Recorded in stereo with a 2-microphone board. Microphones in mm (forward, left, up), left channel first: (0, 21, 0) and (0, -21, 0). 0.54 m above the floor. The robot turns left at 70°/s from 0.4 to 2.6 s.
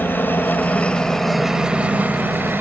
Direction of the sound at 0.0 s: 70° left.